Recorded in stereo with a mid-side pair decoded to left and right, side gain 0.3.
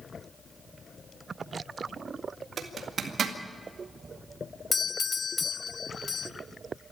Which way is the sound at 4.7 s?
50° left.